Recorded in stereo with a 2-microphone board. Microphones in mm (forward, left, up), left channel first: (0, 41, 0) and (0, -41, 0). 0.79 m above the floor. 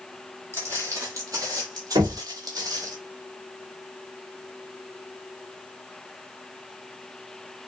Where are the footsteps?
35° right (ahead or behind), 1.2 m; by 3.0 s 45° right (ahead or behind), 1.3 m.